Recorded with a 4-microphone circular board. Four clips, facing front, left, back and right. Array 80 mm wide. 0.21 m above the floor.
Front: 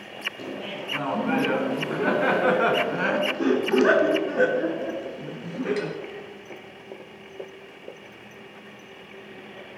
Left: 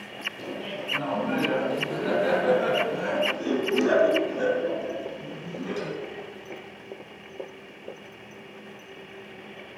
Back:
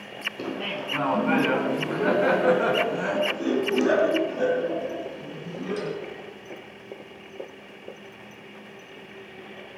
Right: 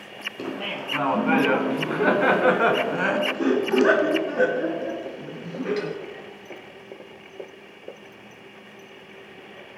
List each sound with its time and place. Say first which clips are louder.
0.4 s laughter: right 4 dB, back 4 dB; 125° right, 1.9 m; by 5.9 s 30° right, 3 m